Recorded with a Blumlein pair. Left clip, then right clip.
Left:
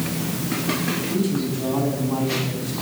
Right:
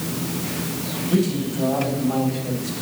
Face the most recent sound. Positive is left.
turn(degrees=-35)